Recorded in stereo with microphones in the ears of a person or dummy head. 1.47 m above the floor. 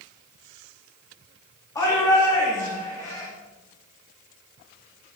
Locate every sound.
1.8 s a shout: 10° left (ahead or behind), 3.5 m